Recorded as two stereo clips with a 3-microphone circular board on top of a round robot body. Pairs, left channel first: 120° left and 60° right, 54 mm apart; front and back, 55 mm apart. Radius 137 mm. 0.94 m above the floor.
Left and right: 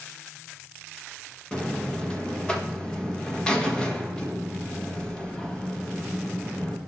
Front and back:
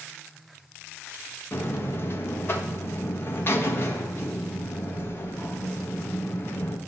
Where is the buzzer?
45° left, 1.6 m.